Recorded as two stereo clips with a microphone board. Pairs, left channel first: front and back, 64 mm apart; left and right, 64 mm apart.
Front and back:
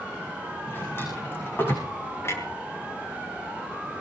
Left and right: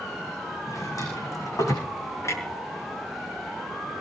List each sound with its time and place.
0.7 s a drawer: 55° left, 9.5 m
2.2 s a clunk: 50° left, 5.5 m